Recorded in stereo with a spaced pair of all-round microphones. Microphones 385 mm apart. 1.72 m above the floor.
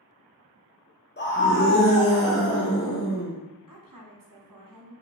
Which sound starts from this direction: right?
A woman speaking, at 3.7 s.